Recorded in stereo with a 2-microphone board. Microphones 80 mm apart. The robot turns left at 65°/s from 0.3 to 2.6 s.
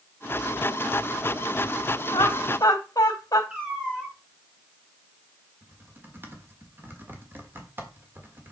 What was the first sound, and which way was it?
Laughter, 60° left (ahead or behind).